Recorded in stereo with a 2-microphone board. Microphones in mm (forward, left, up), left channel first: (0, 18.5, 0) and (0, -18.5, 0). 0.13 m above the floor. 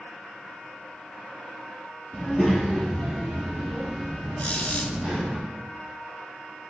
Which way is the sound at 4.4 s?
45° left (ahead or behind).